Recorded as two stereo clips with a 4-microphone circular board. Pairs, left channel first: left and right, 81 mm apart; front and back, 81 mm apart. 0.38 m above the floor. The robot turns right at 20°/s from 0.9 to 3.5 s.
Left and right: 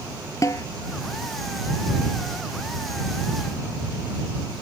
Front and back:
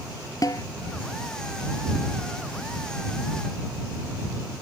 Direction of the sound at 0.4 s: 40° left.